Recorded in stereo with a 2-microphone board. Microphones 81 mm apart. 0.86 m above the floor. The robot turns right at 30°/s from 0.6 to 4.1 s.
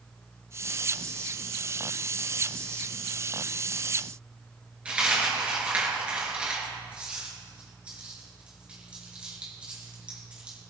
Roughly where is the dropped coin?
Centre.